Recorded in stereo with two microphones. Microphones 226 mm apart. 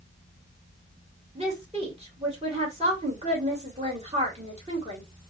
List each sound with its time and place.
1.4 s a woman speaking: 25° right (ahead or behind), 3 m